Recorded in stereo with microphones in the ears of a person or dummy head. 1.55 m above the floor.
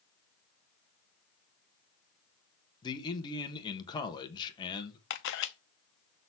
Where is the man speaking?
20° left (ahead or behind), 1.4 m.